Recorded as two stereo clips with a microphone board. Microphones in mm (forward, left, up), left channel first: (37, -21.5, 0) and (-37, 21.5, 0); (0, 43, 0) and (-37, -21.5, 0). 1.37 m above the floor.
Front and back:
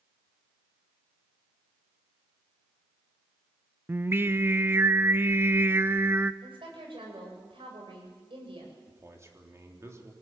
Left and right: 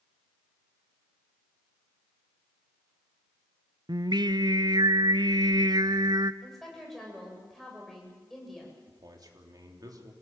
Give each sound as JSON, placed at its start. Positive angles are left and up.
{"t": 3.9, "sound": "singing", "azimuth_deg": -145, "distance_m": 0.6}
{"t": 6.4, "sound": "a woman speaking", "azimuth_deg": 145, "distance_m": 7.5}
{"t": 8.9, "sound": "a man speaking", "azimuth_deg": -155, "distance_m": 3.5}